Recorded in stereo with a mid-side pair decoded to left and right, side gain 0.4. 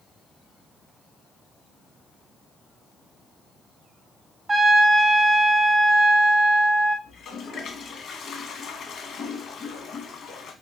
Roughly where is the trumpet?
Ahead right.